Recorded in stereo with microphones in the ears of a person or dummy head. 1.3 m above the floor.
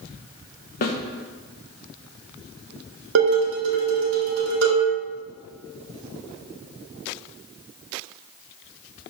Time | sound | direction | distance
0.8 | a snare drum | 45° left (ahead or behind) | 0.8 m
3.1 | dishes clattering | 70° right (ahead or behind) | 1.5 m